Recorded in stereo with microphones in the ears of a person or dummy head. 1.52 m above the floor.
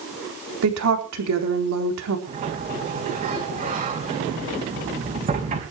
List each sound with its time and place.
0.6 s a woman speaking: 90° right, 4 m
2.3 s a sliding door: 35° right (ahead or behind), 4 m